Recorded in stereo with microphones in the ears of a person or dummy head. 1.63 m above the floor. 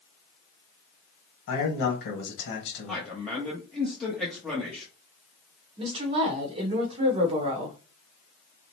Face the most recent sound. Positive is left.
turn(degrees=-35)  # may be behind; listen again after turning